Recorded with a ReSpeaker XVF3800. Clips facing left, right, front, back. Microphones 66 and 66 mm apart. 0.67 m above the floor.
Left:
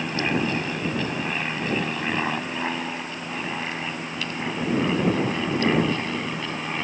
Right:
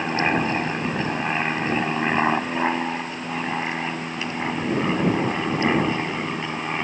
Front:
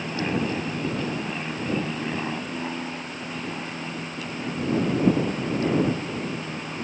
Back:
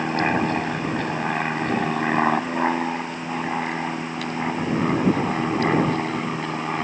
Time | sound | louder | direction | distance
0.0 | an aircraft | right 3 dB, back 5 dB | 145° right | ?